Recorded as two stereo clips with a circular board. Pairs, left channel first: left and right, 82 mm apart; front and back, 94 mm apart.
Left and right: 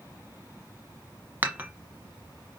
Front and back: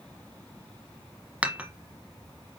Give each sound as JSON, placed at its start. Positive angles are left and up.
{"t": 1.4, "sound": "dishes clattering", "azimuth_deg": -120, "distance_m": 0.9}